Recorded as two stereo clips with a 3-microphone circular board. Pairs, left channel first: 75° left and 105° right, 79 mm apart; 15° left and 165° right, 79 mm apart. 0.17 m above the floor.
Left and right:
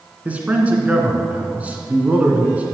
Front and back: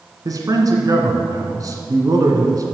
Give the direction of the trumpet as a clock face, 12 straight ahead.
No trumpet in this recording.